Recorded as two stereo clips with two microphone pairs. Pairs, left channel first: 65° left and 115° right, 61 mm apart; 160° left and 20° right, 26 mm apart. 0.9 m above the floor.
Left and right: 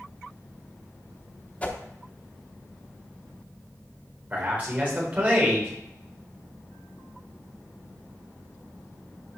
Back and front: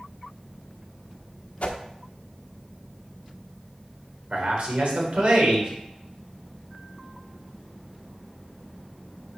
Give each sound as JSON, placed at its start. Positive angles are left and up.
{"t": 1.6, "sound": "a whoosh", "azimuth_deg": 135, "distance_m": 1.0}
{"t": 4.3, "sound": "a man speaking", "azimuth_deg": -45, "distance_m": 3.5}